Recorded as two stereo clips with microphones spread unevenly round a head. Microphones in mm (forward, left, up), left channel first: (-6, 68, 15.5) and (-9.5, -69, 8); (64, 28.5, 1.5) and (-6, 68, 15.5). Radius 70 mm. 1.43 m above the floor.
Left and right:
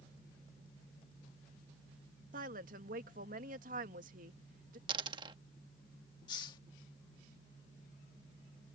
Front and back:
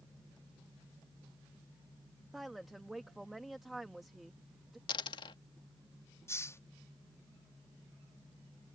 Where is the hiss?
30° left.